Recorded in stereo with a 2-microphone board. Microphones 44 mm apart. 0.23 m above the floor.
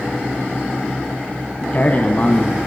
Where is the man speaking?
35° left (ahead or behind), 2 m.